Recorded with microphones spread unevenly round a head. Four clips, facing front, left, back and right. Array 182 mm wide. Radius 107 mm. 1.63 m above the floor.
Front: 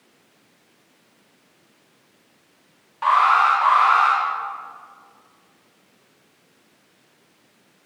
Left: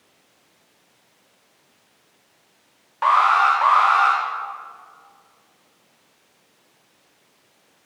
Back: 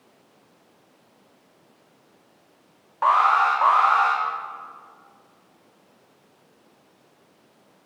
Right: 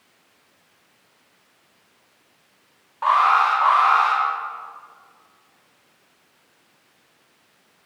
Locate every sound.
3.0 s an alarm: 160° left, 6 m